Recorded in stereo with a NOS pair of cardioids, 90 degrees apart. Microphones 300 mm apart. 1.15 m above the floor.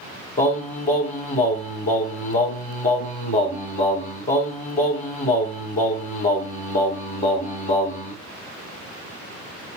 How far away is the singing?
About 1.5 m.